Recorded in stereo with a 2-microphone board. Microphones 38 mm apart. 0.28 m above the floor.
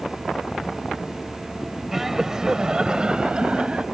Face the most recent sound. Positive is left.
turn(degrees=-30)  # may be behind; listen again after turning